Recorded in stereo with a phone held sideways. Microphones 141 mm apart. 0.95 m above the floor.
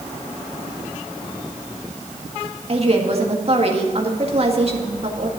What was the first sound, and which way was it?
A woman speaking, 45° right (ahead or behind).